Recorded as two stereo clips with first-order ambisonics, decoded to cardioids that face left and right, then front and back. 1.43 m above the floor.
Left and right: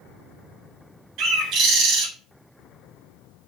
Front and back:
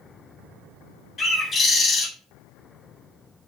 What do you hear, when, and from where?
1.2 s a bird: 70° right, 0.8 m